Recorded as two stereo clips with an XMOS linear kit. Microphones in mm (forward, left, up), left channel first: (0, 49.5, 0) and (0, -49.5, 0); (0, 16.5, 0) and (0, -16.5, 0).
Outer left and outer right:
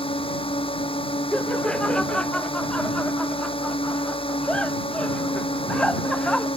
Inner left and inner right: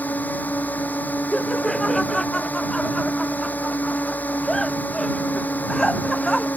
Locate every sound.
0.0 s a drone: 60° left (ahead or behind)
1.3 s laughter: 10° left (ahead or behind)